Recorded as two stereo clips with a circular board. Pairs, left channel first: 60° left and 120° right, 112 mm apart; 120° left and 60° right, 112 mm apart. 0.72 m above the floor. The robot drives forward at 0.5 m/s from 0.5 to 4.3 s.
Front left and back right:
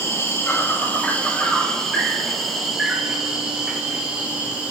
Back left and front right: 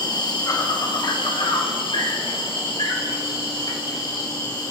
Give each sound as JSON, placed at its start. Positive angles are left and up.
{"t": 0.0, "sound": "an insect", "azimuth_deg": 110, "distance_m": 1.2}